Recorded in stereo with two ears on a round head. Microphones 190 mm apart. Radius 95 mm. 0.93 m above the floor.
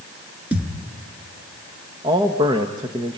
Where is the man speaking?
20° right (ahead or behind), 1.3 m.